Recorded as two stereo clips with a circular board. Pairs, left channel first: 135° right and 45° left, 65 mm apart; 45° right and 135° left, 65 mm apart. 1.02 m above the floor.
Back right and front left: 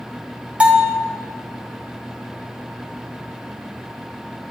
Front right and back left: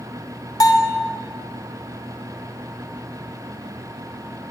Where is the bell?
25° right, 1.5 m.